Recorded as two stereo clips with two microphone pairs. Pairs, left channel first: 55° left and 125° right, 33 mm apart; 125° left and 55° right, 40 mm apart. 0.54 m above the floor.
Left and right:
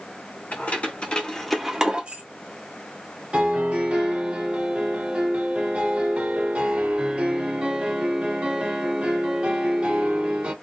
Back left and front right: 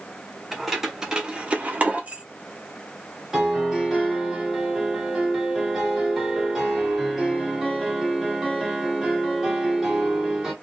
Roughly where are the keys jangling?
Ahead left.